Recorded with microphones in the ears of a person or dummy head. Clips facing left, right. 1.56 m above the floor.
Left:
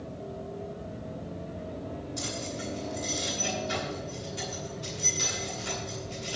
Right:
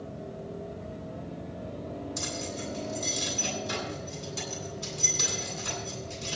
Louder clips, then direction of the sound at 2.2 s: Even; 80° right.